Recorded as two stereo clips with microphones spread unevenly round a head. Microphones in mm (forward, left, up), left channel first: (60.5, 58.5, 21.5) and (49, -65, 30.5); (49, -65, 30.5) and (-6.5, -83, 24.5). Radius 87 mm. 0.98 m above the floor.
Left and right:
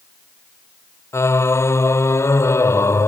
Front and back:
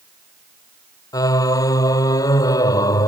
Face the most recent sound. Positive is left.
turn(degrees=15)